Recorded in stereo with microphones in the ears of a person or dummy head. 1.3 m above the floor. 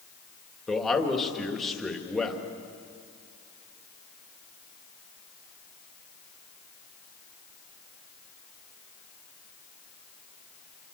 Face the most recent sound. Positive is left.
turn(degrees=5)  # may be behind; listen again after turning